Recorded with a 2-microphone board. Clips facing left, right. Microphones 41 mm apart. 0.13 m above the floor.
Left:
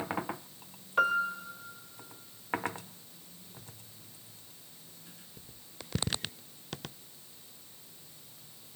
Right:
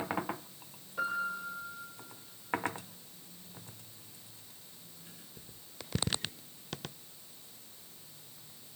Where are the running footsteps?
I don't hear running footsteps.